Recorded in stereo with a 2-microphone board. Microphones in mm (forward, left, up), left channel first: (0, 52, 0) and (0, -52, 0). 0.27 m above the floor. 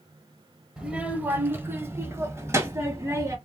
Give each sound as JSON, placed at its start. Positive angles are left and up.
{"t": 0.8, "sound": "a child speaking", "side_deg": -10, "distance_m": 0.7}